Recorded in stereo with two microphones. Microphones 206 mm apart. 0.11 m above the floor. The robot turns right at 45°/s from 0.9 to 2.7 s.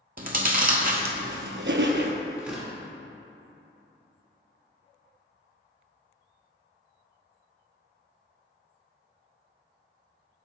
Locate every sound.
0.2 s chewing: 50° right (ahead or behind), 0.6 m; by 2.1 s 60° right (ahead or behind), 0.6 m
2.4 s tearing paper: 5° right (ahead or behind), 1.9 m; by 2.7 s centre (ahead or behind), 1.9 m